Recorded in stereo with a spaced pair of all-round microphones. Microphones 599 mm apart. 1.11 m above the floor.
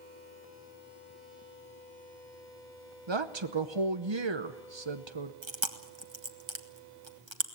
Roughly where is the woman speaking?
Right.